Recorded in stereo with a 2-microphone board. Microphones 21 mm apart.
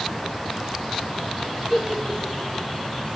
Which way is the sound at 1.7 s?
5° right (ahead or behind).